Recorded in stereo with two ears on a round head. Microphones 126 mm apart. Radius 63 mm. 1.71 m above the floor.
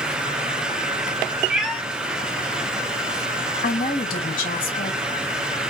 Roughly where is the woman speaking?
Left.